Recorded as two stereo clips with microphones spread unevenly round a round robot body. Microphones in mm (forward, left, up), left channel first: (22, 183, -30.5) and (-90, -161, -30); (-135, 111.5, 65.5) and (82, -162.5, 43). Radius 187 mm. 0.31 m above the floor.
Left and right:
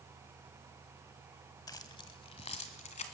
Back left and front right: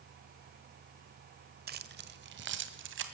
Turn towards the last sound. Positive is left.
turn(degrees=0)